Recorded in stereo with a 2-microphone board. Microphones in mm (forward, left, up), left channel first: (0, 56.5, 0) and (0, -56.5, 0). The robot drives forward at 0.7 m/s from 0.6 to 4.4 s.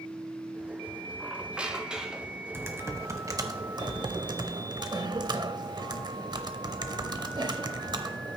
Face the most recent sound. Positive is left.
turn(degrees=-40)  # may be behind; listen again after turning